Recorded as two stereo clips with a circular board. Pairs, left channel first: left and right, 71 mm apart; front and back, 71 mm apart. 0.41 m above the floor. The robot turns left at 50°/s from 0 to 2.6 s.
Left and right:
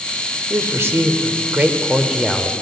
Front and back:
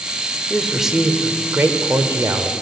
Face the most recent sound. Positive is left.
turn(degrees=170)